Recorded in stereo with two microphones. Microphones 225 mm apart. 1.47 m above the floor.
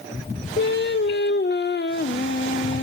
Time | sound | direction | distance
0.6 | singing | 55° left (ahead or behind) | 0.5 m